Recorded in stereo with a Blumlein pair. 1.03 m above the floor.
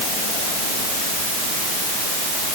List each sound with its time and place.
Only background noise.